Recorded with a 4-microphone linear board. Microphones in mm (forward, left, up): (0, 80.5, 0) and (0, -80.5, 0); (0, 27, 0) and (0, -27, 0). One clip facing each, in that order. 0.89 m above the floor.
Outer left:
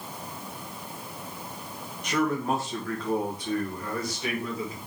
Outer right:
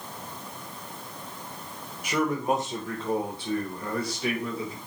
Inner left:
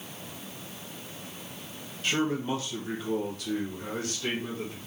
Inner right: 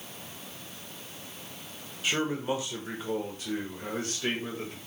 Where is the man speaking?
10° right (ahead or behind), 1.0 m; by 4.8 s 30° right (ahead or behind), 1.9 m.